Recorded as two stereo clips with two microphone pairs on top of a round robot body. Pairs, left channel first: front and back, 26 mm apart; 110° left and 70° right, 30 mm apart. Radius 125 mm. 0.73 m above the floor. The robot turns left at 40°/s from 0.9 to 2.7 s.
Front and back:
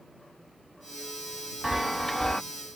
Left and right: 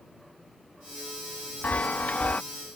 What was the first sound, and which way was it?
A chime, 105° left.